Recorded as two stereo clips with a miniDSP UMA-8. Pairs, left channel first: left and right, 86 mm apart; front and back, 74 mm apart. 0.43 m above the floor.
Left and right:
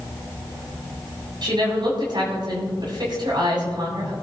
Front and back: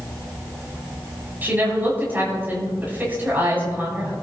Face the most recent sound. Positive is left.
turn(degrees=-115)